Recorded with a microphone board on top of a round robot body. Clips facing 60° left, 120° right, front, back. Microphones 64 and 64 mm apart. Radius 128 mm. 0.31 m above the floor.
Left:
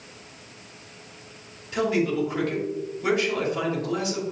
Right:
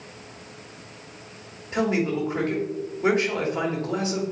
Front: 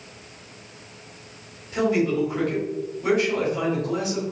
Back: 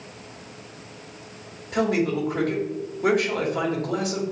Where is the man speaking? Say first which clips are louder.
Even, front 1 dB; 170° right, 2.5 m.